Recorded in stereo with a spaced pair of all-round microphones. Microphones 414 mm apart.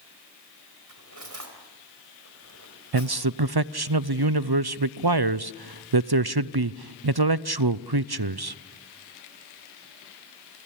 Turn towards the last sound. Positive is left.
turn(degrees=-65)  # may be behind; listen again after turning